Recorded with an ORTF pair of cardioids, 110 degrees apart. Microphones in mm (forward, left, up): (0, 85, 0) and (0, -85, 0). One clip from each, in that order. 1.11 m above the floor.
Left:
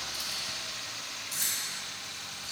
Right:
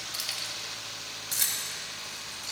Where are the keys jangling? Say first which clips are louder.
Right 4 dB; 60° right, 1.7 m; by 2.5 s 70° right, 4 m.